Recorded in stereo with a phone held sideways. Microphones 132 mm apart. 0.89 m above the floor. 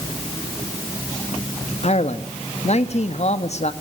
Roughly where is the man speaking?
Left.